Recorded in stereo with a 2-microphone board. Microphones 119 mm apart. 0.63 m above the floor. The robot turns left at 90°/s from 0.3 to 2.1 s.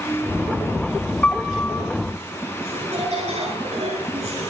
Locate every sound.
1.2 s a piano: 15° left (ahead or behind), 1.1 m; by 1.8 s 20° left (ahead or behind), 1.1 m
2.6 s laughter: 65° right (ahead or behind), 8 m